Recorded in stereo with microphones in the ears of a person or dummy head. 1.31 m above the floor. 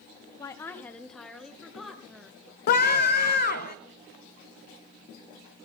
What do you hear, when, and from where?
0.4 s a woman speaking: 20° left (ahead or behind), 0.6 m; by 2.4 s 5° right (ahead or behind), 1.7 m
2.7 s a scream: 50° left (ahead or behind), 0.7 m